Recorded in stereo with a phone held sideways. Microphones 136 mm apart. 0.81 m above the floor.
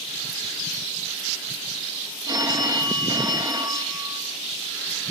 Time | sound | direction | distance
2.3 | a phone ringing | 30° right (ahead or behind) | 0.5 m